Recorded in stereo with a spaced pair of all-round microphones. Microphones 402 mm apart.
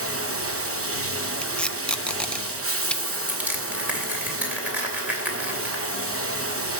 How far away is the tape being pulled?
About 0.7 m.